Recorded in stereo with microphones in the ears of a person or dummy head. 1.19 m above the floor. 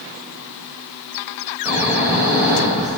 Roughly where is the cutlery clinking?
I don't hear cutlery clinking.